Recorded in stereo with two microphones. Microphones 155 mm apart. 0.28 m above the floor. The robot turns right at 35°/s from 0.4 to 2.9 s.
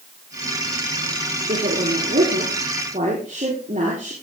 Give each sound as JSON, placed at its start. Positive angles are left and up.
{"t": 1.5, "sound": "a woman speaking", "azimuth_deg": -105, "distance_m": 8.0}